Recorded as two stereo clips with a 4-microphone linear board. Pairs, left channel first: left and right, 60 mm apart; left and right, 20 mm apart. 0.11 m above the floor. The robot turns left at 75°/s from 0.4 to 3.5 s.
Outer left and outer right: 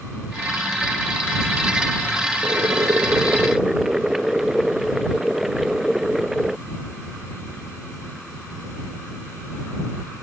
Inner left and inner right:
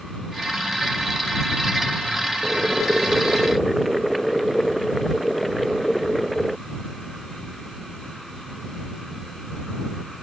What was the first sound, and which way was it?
Boiling, 95° right.